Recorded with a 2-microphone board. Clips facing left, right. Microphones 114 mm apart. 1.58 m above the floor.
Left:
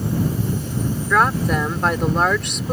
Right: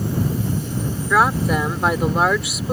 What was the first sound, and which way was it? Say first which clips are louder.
A woman speaking: right 1 dB; 5° right (ahead or behind).